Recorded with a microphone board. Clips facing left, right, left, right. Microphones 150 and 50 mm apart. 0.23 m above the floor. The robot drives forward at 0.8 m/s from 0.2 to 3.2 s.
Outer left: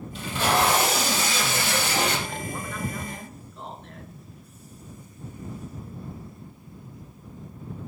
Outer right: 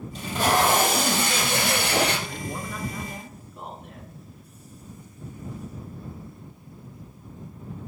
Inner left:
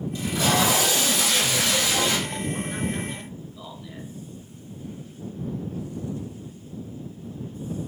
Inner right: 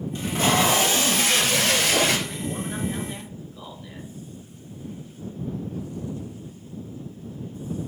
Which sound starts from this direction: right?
Tape being pulled, at 0.1 s.